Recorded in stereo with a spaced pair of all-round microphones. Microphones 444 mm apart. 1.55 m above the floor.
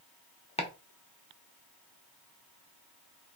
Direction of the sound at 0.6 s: 15° left (ahead or behind).